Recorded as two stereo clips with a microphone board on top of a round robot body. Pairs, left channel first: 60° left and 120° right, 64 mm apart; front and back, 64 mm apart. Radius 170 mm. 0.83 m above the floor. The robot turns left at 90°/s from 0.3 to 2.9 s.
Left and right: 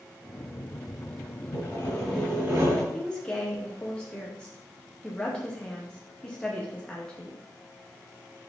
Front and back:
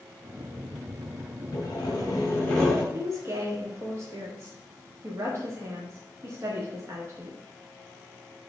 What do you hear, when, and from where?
1.5 s sawing: 15° left, 3.5 m; by 2.8 s 100° right, 3.5 m
2.9 s a woman speaking: 135° left, 1.5 m